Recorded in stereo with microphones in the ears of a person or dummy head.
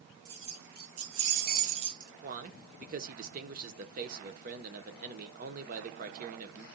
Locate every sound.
0.2 s keys jangling: 85° right, 1.8 m; by 2.1 s 15° right (ahead or behind), 0.9 m
2.2 s a man speaking: 45° right (ahead or behind), 0.8 m